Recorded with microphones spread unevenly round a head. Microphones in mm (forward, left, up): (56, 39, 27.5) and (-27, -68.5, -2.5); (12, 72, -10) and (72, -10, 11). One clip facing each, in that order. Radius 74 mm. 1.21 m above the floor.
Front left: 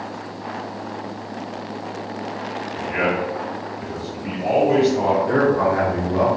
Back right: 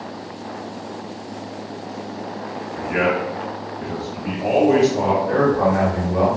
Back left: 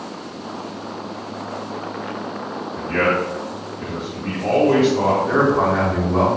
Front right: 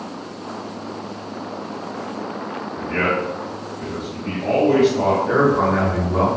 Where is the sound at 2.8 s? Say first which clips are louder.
Back right 2 dB, back left 2 dB; 170° right, 1.6 m.